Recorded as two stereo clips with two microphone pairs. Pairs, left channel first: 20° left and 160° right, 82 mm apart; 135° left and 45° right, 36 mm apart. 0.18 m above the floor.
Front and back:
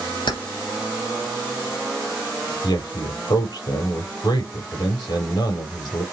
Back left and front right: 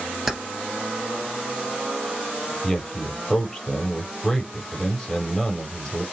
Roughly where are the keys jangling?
Ahead left.